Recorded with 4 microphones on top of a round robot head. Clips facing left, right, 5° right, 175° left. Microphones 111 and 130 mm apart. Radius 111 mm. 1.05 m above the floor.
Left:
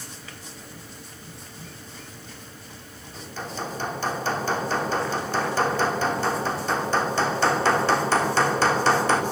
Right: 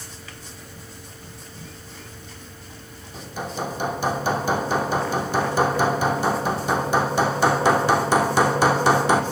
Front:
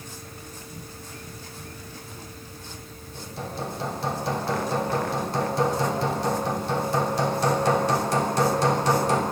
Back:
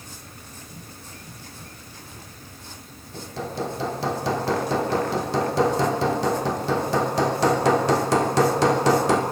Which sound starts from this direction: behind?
Hammering, at 3.1 s.